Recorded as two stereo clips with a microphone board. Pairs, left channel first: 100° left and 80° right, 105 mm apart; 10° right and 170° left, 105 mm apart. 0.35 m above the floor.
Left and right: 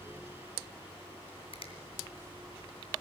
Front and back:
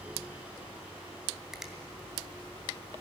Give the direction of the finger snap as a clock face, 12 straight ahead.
9 o'clock.